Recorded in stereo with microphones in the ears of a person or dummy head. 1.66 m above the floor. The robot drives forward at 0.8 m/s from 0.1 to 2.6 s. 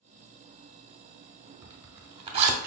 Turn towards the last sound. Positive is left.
turn(degrees=-50)  # may be behind; listen again after turning